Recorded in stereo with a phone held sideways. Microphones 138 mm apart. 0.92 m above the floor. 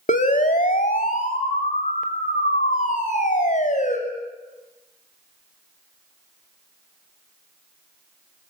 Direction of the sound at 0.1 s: 70° left (ahead or behind).